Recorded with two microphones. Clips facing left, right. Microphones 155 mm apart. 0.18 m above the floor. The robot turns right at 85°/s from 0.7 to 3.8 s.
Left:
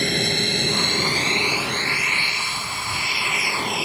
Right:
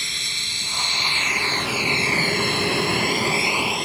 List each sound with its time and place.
0.0 s an aircraft: 60° left (ahead or behind); by 3.9 s 5° left (ahead or behind)